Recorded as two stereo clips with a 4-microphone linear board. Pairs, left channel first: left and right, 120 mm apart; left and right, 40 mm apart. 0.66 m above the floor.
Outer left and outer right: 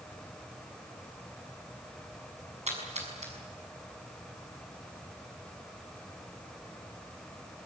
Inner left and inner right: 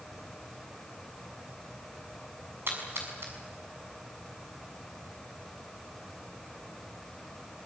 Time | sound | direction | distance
2.7 | a splash | 65° right (ahead or behind) | 6.5 m